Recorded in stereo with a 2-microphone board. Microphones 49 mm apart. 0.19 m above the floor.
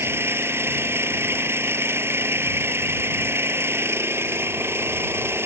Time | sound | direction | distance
0.0 | an engine running | 60° right (ahead or behind) | ?